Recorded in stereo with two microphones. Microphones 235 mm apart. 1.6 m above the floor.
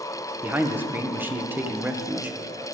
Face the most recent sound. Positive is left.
turn(degrees=-10)  # may be behind; listen again after turning